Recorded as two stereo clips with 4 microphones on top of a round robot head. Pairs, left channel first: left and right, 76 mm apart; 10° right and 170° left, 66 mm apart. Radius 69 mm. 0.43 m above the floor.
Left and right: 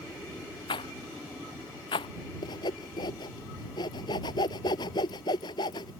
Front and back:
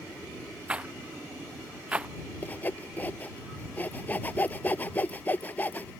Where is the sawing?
55° left.